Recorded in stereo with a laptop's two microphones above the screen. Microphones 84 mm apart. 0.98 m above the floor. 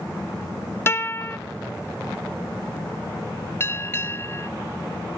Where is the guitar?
30° left (ahead or behind), 1.0 m.